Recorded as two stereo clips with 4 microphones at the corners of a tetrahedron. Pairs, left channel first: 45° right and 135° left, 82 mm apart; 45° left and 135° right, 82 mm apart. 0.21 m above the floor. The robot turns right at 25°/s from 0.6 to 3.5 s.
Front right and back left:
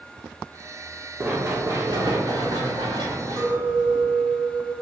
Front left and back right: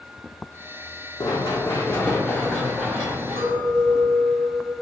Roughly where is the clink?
Behind.